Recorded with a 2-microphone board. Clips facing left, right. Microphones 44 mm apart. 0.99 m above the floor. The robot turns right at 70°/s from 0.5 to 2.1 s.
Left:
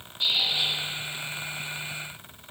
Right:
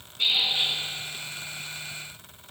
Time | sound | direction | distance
0.2 | a squeak | 65° right (ahead or behind) | 4.5 m